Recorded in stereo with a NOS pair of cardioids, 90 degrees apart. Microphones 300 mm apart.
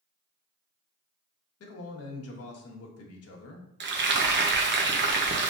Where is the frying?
35° right, 0.9 m.